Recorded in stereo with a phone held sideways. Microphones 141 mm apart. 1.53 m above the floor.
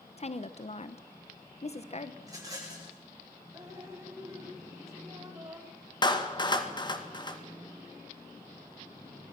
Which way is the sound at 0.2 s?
50° left (ahead or behind).